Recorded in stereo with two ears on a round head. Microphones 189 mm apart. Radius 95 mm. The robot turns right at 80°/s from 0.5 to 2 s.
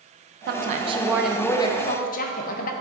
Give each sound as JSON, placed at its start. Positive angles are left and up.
{"t": 0.5, "sound": "a woman speaking", "azimuth_deg": -65, "distance_m": 0.6}